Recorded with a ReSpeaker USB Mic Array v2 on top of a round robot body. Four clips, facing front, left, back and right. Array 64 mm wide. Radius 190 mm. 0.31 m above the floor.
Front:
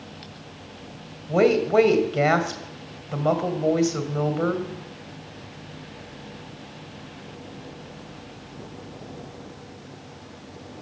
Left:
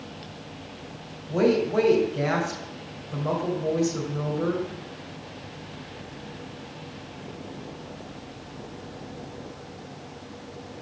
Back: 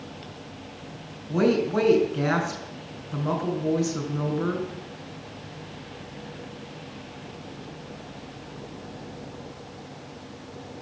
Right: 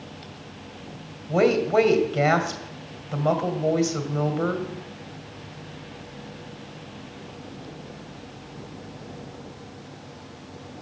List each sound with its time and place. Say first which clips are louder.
1.3 s a woman speaking: right 2 dB, front 4 dB; 20° right, 2 m